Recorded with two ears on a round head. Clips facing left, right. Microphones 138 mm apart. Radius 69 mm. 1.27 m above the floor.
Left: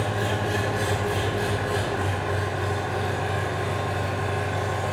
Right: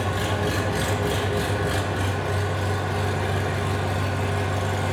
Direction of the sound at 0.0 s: 85° right.